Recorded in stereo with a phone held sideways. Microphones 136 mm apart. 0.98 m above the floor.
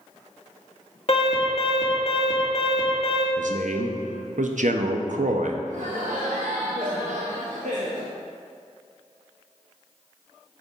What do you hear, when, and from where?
1.1 s an alarm: 50° left (ahead or behind), 1.6 m
3.4 s a man speaking: 75° right (ahead or behind), 0.7 m
5.7 s laughter: 75° right (ahead or behind), 0.8 m